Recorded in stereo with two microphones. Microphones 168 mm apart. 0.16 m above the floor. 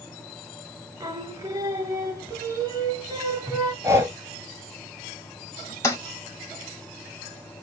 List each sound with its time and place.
1.0 s singing: 20° right (ahead or behind), 1.1 m
3.8 s breathing: 15° right (ahead or behind), 0.7 m
5.8 s a toilet flushing: 20° left (ahead or behind), 1.3 m